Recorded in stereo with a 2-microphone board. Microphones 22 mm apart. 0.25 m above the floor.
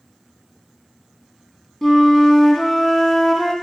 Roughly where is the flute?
Centre.